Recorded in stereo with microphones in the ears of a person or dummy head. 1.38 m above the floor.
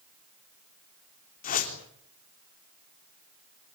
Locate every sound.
1.4 s a whoosh: 45° left (ahead or behind), 3.5 m